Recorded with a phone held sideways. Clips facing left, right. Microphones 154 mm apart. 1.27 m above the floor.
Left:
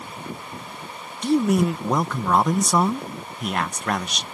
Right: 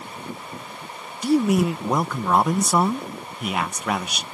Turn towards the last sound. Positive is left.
turn(degrees=-5)  # may be behind; listen again after turning